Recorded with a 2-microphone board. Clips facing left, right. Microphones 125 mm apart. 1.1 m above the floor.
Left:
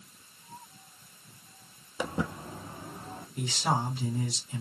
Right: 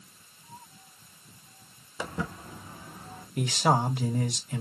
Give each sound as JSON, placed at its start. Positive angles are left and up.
{"t": 2.0, "sound": "footsteps", "side_deg": 15, "distance_m": 1.2}
{"t": 3.4, "sound": "a man speaking", "side_deg": -65, "distance_m": 1.5}